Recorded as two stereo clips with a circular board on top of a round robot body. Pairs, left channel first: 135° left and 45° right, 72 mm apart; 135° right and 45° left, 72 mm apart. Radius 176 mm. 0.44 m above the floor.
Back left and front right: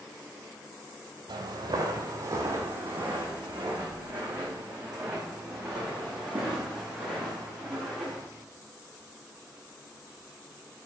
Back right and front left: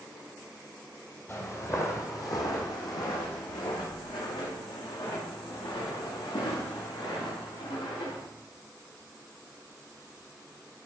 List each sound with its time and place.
1.3 s footsteps: 75° right, 1.2 m; by 8.2 s 135° right, 4.5 m